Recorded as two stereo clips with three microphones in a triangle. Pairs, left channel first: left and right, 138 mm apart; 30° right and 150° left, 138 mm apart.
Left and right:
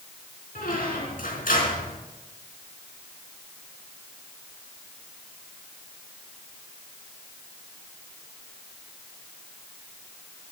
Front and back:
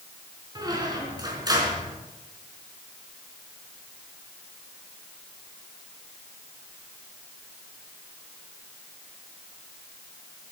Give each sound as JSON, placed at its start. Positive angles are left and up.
{"t": 0.6, "sound": "a squeak", "azimuth_deg": 90, "distance_m": 4.0}